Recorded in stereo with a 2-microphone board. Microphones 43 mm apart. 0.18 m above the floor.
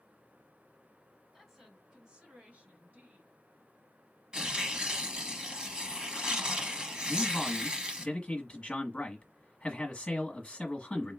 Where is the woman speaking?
5° right (ahead or behind), 1.7 m; by 3.3 s 45° right (ahead or behind), 2 m.